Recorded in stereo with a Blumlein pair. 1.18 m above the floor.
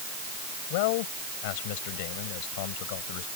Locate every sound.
0.7 s a man speaking: 45° left